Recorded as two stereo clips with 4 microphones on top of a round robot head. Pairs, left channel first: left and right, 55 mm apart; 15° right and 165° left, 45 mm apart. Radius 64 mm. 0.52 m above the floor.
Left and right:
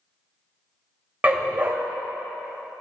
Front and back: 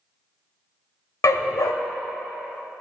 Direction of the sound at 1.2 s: 25° right.